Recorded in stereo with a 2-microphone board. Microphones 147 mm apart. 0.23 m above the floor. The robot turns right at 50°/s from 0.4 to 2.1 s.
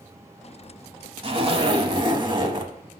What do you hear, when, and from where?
1.2 s a zipper: 100° right, 1.0 m; by 2.7 s 55° right, 1.0 m